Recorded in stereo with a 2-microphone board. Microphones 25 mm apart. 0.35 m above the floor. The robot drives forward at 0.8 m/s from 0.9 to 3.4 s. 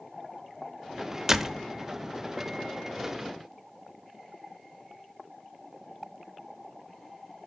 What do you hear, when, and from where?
1.3 s a door slam: 20° right (ahead or behind), 0.6 m; by 1.7 s 15° right (ahead or behind), 0.7 m